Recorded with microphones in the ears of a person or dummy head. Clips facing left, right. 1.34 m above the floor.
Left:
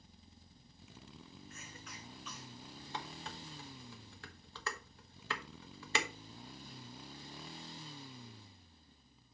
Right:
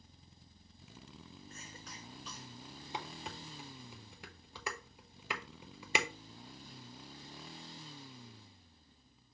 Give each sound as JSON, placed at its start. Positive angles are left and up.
{"t": 1.5, "sound": "a cough", "side_deg": -25, "distance_m": 0.8}
{"t": 2.9, "sound": "dishes clattering", "side_deg": -15, "distance_m": 1.0}